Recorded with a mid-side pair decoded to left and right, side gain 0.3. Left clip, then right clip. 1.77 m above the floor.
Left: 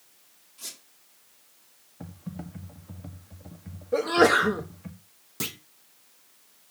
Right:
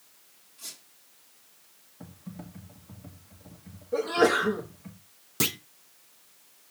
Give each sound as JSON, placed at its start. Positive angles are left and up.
{"t": 0.6, "sound": "a squeak", "azimuth_deg": 70, "distance_m": 2.5}
{"t": 2.0, "sound": "typing on a keyboard", "azimuth_deg": 60, "distance_m": 1.5}
{"t": 3.9, "sound": "a sneeze", "azimuth_deg": 60, "distance_m": 1.1}
{"t": 5.4, "sound": "a clunk", "azimuth_deg": -55, "distance_m": 0.5}